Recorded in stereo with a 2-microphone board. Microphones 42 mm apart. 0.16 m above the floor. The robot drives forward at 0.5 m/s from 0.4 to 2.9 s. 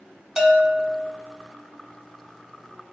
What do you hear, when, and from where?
0.4 s a bell: 15° right (ahead or behind), 0.6 m